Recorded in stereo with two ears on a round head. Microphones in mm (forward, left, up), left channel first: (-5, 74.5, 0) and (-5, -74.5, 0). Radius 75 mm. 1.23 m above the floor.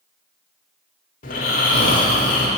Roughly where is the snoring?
Left.